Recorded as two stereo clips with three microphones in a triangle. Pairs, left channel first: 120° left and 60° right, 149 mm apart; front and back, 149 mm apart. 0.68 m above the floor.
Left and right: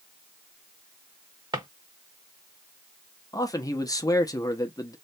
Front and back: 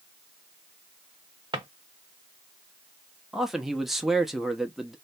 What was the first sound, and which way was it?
A drawer, 125° right.